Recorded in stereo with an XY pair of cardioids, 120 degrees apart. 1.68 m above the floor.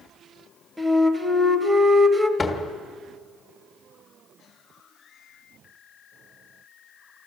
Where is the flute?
15° right, 1.5 m.